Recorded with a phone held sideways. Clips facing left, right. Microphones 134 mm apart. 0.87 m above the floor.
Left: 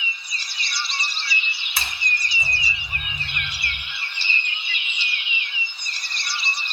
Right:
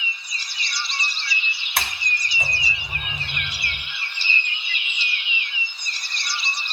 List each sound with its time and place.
1.8 s a sliding door: 70° right (ahead or behind), 1.8 m